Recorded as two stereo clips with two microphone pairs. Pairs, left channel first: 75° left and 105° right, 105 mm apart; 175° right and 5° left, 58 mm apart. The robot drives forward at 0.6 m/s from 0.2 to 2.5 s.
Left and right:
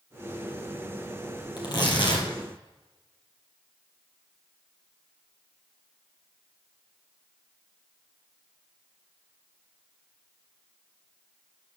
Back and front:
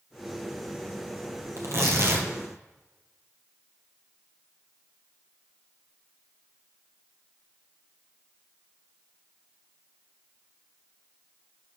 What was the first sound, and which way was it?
Tearing paper, 30° left.